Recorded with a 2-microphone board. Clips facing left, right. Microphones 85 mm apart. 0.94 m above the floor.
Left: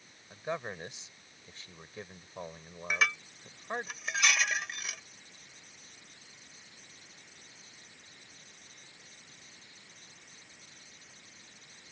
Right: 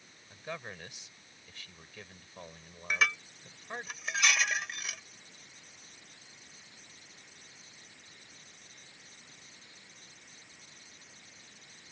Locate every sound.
0.3 s a man speaking: 25° left (ahead or behind)
2.9 s dishes clattering: 5° left (ahead or behind)